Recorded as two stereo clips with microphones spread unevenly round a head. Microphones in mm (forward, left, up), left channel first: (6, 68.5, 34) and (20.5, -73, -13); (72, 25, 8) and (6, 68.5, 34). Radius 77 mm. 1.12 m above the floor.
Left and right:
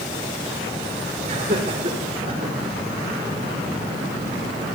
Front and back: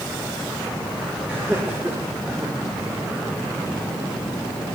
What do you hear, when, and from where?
1.2 s laughter: 135° right, 5 m